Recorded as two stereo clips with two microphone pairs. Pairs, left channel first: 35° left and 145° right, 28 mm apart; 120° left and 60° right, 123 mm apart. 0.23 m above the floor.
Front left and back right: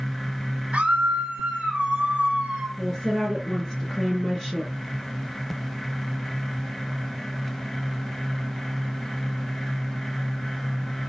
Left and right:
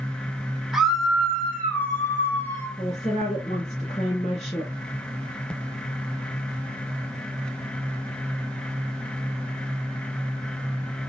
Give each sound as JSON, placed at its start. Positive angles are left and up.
{"t": 0.7, "sound": "a scream", "azimuth_deg": -145, "distance_m": 1.7}
{"t": 2.8, "sound": "a woman speaking", "azimuth_deg": 120, "distance_m": 4.0}